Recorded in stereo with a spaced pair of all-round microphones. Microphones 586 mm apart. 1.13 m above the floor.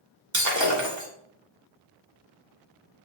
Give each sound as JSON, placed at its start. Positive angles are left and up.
{"t": 0.3, "sound": "breaking glass", "side_deg": -30, "distance_m": 2.0}